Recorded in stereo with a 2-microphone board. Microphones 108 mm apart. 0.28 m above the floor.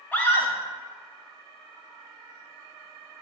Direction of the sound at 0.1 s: 15° left (ahead or behind).